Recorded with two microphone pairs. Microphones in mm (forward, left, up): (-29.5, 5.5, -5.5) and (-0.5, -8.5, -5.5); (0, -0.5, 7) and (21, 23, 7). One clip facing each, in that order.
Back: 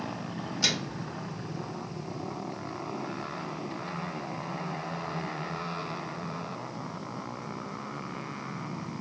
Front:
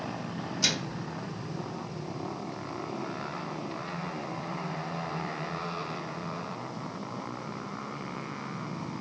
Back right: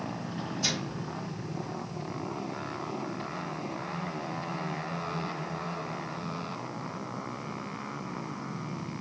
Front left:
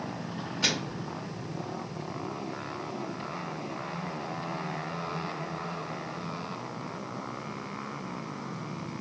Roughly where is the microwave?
Left.